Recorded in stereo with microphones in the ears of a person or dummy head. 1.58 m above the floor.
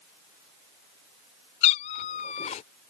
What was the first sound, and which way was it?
A cat meowing, 30° left (ahead or behind).